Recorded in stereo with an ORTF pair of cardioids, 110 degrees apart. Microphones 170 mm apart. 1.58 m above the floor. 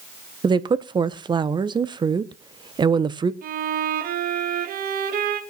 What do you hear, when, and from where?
0.4 s a woman speaking: 25° right, 1.1 m
3.4 s a violin: 60° right, 2 m